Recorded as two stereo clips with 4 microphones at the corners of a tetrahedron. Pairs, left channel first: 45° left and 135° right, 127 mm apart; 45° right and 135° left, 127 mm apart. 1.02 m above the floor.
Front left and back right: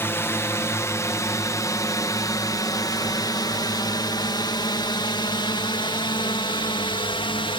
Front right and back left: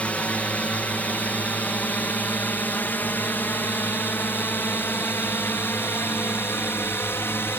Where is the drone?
15° left; by 7.6 s 20° left.